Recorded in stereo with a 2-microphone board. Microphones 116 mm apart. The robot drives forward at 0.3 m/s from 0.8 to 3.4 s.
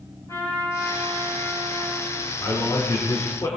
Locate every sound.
0.3 s a trumpet: 30° left (ahead or behind), 7 m
2.4 s a man speaking: 35° left (ahead or behind), 3 m